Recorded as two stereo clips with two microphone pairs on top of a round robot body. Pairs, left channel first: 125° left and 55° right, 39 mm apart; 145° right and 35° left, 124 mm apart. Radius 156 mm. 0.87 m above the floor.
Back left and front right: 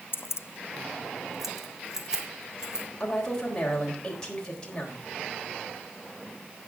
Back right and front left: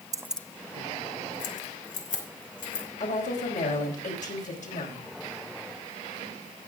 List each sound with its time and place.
0.1 s keys jangling: 95° left, 0.7 m; by 2.9 s 130° right, 4 m
3.0 s a woman speaking: 165° right, 4 m